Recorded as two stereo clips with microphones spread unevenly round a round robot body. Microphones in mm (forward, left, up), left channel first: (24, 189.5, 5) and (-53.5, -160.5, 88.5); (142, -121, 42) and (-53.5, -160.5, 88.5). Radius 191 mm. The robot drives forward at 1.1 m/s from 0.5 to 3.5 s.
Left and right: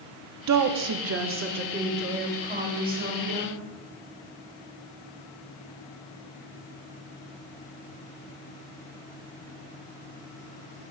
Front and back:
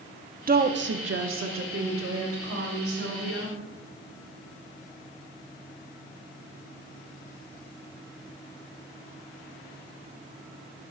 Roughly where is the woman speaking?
Behind right.